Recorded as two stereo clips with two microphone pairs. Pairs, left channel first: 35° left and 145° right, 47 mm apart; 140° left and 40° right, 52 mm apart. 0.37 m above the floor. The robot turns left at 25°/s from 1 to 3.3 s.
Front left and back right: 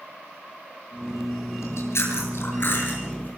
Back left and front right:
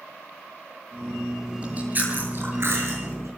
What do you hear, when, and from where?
1.6 s chewing: 25° left, 8 m; by 3.3 s 20° right, 8 m